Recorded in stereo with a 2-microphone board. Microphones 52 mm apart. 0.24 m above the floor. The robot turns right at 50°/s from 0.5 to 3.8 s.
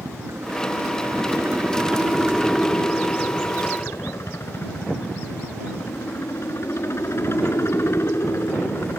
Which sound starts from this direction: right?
A helicopter, at 0.0 s.